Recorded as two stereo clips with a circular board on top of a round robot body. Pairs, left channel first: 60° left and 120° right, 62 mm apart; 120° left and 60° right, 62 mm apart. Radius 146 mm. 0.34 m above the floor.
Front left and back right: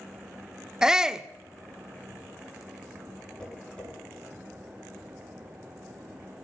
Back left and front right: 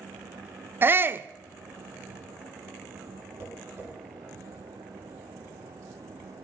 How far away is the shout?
About 1.0 m.